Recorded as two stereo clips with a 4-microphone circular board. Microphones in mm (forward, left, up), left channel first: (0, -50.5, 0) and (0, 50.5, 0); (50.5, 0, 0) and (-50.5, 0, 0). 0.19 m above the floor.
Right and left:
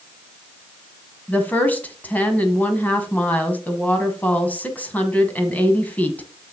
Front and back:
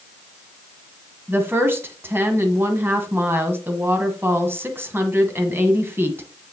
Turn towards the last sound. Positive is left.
turn(degrees=-145)